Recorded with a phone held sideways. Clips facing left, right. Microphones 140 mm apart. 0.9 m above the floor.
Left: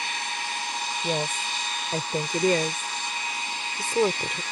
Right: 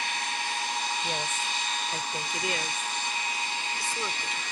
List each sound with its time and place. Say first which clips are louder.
1.0 s a woman speaking: left 4 dB; 35° left (ahead or behind); by 4.4 s 60° left (ahead or behind)